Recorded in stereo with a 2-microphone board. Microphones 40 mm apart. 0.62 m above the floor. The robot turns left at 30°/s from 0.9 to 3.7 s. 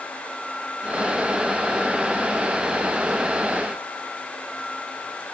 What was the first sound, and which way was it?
Only background noise.